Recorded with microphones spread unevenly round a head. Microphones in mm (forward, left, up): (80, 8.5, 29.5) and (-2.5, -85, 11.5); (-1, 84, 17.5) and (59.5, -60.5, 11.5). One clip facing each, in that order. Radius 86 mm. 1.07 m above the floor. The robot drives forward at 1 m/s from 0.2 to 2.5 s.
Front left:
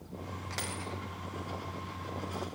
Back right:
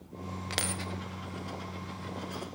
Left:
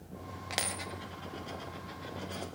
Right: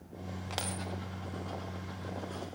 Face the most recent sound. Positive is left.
turn(degrees=180)